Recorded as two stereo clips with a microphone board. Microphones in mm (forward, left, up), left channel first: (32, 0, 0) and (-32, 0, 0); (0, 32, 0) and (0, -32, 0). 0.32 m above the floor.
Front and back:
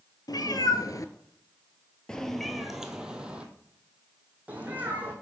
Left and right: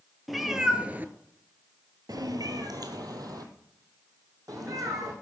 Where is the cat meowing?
Straight ahead, 1.0 m; by 5.1 s 120° right, 2.5 m.